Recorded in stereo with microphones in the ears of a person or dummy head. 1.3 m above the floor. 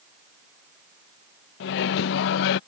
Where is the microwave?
60° left (ahead or behind).